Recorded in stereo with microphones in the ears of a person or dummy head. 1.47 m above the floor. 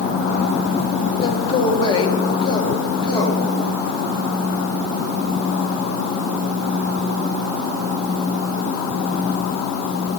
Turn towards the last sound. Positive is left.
turn(degrees=25)  # may be behind; listen again after turning